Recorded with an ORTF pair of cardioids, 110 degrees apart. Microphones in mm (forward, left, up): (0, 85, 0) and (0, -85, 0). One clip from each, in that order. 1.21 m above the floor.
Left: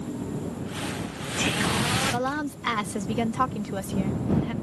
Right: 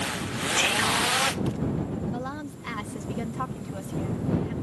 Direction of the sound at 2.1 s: 45° left.